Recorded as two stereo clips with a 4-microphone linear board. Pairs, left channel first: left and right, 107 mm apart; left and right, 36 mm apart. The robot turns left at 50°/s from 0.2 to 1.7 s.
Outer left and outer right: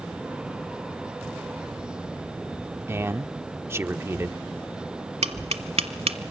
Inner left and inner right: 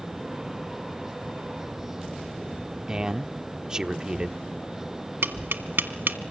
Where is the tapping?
80° right, 1.3 m.